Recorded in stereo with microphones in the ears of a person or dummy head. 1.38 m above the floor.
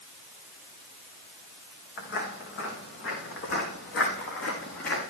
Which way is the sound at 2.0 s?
65° left (ahead or behind).